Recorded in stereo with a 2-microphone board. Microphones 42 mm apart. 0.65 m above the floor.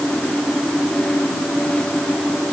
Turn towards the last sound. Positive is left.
No sound to turn to.